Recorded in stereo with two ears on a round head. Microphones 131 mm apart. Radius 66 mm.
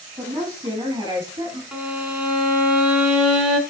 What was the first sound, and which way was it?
A woman speaking, 25° right (ahead or behind).